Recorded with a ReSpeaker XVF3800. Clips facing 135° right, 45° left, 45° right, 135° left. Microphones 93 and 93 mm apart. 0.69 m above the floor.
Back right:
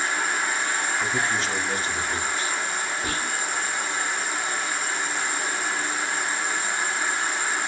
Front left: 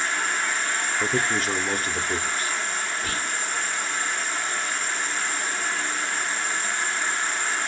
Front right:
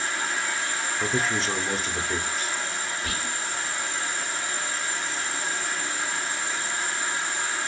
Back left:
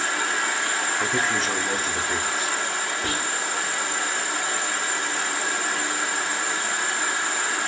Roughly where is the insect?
Behind left.